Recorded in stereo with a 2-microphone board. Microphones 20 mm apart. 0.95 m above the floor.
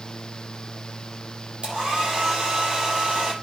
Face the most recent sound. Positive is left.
turn(degrees=-55)  # may be behind; listen again after turning